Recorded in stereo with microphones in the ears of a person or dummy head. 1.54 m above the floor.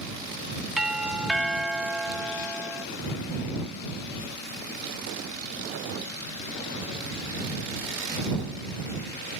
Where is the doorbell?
5° right (ahead or behind).